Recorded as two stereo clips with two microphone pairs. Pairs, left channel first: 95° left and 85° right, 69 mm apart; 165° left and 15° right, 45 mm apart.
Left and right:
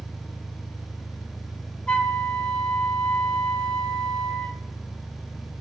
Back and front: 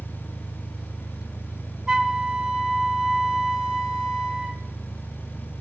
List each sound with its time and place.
0.0 s an engine running: 60° left, 2.5 m
1.9 s a flute: 45° left, 0.7 m